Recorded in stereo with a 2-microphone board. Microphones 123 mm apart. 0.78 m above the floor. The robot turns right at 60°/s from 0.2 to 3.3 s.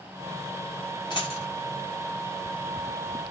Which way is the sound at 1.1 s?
40° left (ahead or behind).